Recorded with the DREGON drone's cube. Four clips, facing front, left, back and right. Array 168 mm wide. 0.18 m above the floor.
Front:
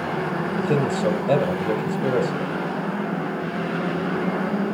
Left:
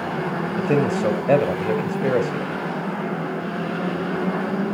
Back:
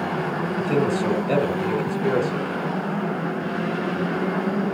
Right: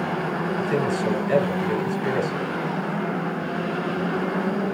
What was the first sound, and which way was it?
A man speaking, 70° left.